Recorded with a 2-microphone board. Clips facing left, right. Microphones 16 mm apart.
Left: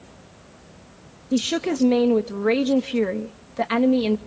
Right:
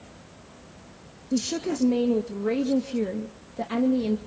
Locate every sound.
1.3 s a woman speaking: 55° left (ahead or behind), 0.8 m